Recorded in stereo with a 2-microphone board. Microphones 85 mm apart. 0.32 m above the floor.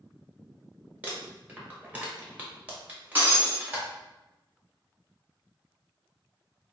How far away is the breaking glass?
About 1.3 m.